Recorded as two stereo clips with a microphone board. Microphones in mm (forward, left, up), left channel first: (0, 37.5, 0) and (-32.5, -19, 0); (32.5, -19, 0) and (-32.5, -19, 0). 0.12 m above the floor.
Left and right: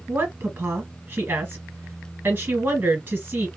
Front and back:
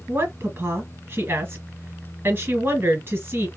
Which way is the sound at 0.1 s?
150° right.